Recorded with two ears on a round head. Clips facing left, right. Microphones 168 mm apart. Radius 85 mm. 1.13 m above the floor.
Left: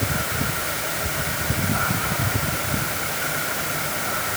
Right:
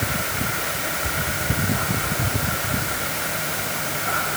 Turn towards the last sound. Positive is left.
No sound to turn to.